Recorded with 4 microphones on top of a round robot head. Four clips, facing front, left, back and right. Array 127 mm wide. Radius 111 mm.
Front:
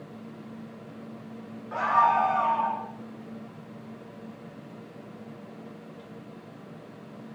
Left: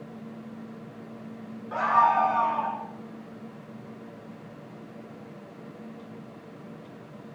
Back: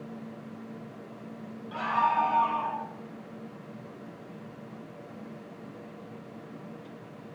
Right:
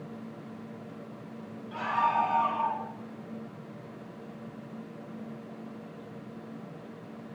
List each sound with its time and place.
1.7 s a scream: 55° left, 4.5 m; by 2.8 s 45° left, 5 m